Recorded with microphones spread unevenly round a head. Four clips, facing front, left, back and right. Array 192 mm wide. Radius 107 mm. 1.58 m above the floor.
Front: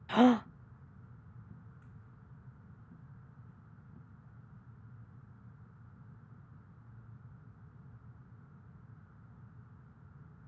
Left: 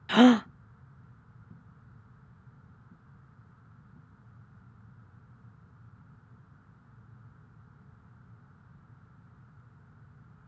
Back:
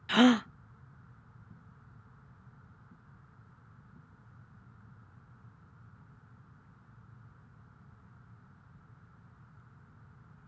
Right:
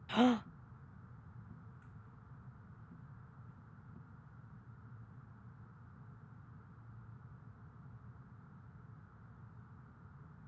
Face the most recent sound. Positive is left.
turn(degrees=125)